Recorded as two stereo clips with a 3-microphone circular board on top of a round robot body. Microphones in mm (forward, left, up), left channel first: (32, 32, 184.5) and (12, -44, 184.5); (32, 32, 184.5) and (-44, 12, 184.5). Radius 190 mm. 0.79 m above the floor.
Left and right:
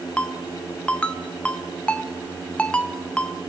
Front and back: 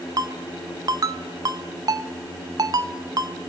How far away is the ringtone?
About 0.8 m.